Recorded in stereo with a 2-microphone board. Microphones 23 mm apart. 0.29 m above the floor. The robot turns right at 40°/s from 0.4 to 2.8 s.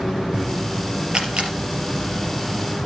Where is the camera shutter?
40° right (ahead or behind), 3.5 m; by 1.5 s 50° right (ahead or behind), 3.5 m.